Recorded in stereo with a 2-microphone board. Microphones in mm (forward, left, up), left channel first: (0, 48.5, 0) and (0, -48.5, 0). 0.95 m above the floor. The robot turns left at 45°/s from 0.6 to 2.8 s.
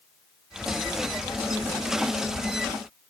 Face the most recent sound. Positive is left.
No sound to turn to.